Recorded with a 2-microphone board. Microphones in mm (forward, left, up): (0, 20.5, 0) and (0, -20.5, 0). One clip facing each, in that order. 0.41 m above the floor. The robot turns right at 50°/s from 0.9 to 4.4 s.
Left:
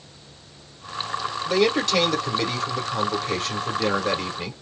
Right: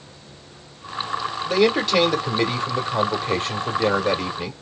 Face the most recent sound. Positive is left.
turn(degrees=0)  # may be behind; listen again after turning